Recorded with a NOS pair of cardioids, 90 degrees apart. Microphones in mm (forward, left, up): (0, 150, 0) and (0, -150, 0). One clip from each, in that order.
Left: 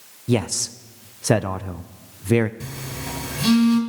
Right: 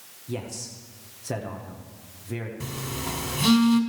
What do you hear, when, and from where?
0.3 s a man speaking: 55° left, 0.5 m
2.6 s a phone buzzing: 5° right, 2 m